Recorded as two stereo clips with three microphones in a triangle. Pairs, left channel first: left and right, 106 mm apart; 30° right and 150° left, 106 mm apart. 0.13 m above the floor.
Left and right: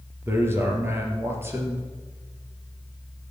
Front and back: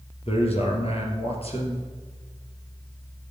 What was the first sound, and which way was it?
A man speaking, 25° right.